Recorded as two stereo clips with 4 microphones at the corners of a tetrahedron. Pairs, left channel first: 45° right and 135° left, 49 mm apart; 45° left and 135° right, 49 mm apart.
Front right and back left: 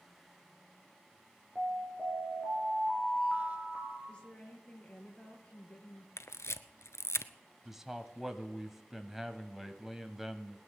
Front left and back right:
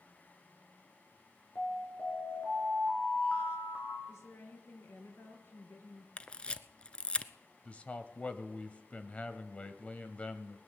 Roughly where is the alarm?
Left.